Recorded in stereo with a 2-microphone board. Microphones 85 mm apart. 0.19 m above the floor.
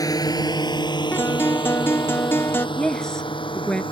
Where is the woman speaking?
10° left (ahead or behind).